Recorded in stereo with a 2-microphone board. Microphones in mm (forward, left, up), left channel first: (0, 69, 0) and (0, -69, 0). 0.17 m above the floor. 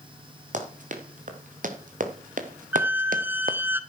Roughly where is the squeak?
Centre.